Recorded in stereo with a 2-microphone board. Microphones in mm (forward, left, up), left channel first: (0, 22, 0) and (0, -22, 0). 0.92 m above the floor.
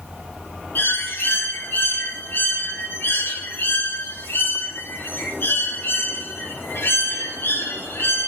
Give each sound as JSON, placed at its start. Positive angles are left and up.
{"t": 0.8, "sound": "a bird", "side_deg": 55, "distance_m": 1.8}